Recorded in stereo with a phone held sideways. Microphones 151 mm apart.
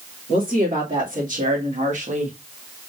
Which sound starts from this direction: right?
A woman speaking, at 0.3 s.